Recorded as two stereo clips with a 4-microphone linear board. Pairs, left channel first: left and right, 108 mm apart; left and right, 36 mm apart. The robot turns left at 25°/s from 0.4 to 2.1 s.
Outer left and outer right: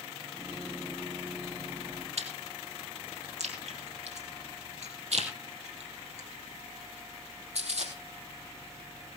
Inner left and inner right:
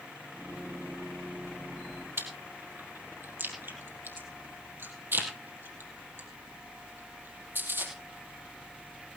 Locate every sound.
2.2 s chewing: 80° right, 3.5 m